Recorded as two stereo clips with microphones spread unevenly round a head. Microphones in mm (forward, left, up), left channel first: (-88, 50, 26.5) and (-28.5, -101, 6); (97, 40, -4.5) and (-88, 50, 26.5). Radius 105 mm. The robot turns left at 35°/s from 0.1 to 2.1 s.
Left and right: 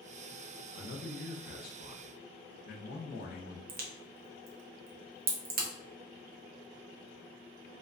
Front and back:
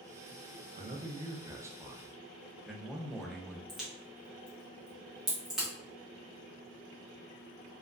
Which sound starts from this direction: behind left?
A man speaking, at 0.8 s.